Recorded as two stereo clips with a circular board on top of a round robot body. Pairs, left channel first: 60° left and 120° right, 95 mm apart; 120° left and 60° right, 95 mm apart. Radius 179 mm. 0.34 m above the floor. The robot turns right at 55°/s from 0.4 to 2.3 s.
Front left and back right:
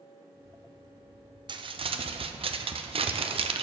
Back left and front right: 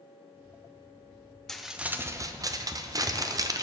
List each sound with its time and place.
1.5 s crumpling: 155° right, 0.6 m; by 3.6 s 110° right, 0.6 m